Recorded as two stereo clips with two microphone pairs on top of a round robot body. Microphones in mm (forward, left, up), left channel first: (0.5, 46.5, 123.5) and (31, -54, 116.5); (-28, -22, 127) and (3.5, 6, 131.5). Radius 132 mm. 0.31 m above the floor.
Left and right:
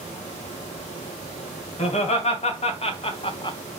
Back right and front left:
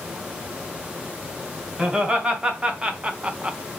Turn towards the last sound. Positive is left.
turn(degrees=100)